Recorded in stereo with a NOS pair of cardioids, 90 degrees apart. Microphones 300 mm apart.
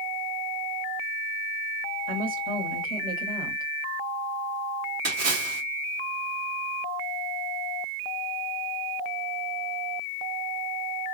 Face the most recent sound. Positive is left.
turn(degrees=-55)